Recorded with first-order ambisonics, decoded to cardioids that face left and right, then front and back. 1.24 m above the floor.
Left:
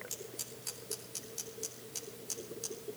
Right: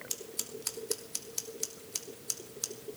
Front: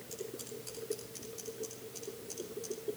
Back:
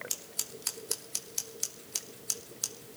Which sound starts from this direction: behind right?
Scissors, at 0.1 s.